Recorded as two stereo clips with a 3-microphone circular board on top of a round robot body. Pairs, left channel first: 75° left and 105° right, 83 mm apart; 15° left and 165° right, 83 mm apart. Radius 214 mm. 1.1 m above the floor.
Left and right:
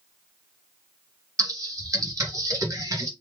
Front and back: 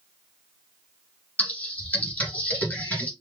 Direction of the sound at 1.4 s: 60° right.